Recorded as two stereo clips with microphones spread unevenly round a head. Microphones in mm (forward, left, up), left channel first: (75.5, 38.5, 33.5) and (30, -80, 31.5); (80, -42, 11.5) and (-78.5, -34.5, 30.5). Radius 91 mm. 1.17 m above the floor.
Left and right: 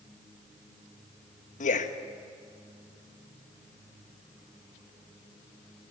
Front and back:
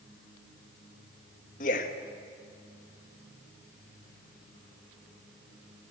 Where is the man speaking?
45° left, 1.2 m.